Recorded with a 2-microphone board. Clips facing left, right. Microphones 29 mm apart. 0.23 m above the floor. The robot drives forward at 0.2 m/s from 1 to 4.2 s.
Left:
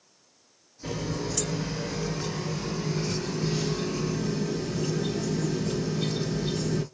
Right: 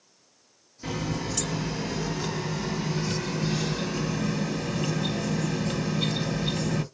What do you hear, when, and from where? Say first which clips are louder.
0.8 s a running tap: right 1 dB; 30° right (ahead or behind), 1.1 m; by 6.8 s 40° right (ahead or behind), 0.9 m